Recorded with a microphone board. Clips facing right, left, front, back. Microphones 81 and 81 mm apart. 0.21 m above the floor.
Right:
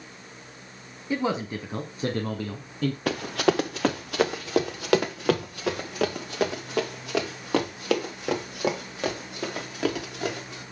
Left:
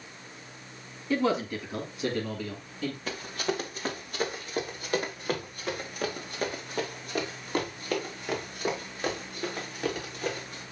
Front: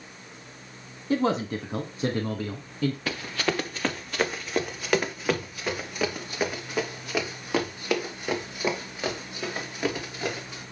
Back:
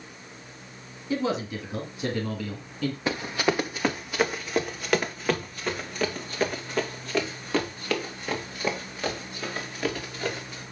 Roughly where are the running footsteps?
Behind right.